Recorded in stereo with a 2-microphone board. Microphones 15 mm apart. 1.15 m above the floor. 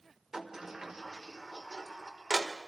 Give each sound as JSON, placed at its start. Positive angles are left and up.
{"t": 0.3, "sound": "a sliding door", "side_deg": -30, "distance_m": 1.3}